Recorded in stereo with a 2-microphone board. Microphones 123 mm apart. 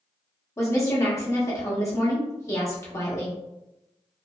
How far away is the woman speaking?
About 0.9 m.